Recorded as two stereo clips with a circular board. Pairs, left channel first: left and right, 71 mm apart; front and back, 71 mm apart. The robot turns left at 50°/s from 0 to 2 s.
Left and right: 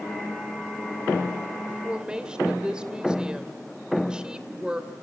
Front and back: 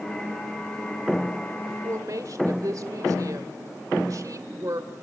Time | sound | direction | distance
1.7 | a woman speaking | 145° right | 2.5 m